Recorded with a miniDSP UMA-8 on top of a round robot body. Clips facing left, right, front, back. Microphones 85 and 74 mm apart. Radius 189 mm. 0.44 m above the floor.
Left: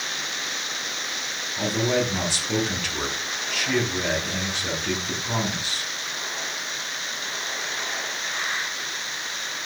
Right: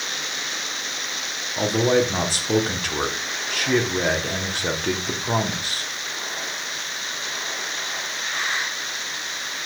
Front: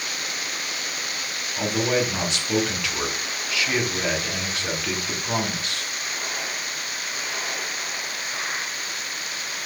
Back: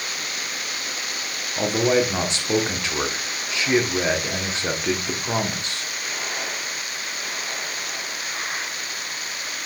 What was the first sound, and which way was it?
A man speaking, 125° right.